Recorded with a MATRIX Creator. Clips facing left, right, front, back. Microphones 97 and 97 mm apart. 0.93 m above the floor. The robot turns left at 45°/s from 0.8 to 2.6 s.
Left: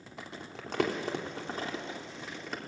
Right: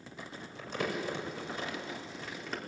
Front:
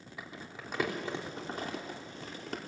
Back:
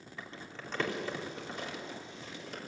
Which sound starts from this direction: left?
Crumpling, at 0.2 s.